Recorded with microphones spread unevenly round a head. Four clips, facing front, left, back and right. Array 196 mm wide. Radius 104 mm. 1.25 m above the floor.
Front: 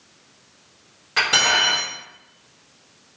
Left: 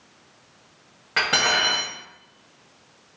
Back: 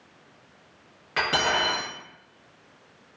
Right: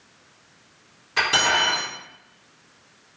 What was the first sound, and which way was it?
Cutlery clinking, 100° left.